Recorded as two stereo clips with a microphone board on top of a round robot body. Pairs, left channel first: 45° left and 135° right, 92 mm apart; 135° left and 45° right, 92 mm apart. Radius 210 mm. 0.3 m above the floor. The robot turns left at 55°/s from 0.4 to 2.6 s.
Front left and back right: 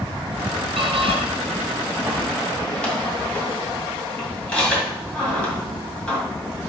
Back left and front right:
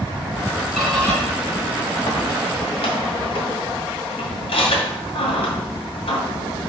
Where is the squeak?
135° right, 2.5 m; by 6.2 s 125° left, 2.5 m.